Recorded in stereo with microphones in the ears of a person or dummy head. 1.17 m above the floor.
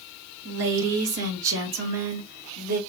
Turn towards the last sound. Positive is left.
turn(degrees=-55)  # may be behind; listen again after turning